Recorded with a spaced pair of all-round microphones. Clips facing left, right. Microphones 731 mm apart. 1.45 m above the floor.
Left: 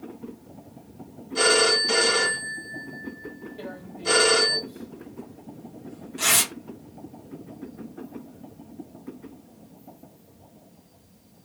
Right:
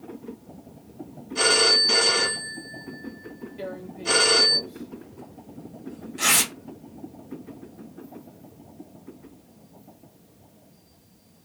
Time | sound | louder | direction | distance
1.4 | a phone ringing | left 3 dB | 65° left (ahead or behind) | 1.3 m
3.6 | tearing paper | right 3 dB | 10° left (ahead or behind) | 1.0 m